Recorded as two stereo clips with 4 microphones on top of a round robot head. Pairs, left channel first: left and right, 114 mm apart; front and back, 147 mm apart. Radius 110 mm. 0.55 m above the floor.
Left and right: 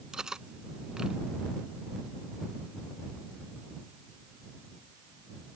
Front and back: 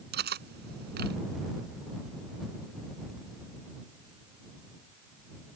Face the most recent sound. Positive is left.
turn(degrees=-175)